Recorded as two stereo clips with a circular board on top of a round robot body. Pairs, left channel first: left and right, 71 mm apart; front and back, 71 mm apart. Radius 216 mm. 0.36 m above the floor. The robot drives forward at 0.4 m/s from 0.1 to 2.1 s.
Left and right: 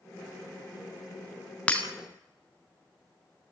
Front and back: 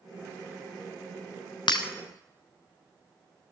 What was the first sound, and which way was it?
Breaking glass, 15° left.